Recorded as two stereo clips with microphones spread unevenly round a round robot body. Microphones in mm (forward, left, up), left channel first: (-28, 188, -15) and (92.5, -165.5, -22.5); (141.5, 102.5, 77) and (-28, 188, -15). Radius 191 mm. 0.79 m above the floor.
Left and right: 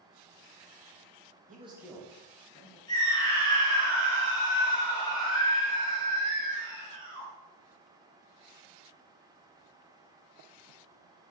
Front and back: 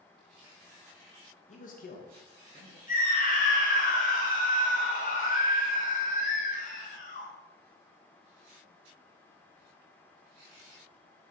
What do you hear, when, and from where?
1.5 s a man speaking: 95° right, 1.0 m; by 2.8 s 45° left, 1.9 m
2.9 s a scream: 30° left, 1.7 m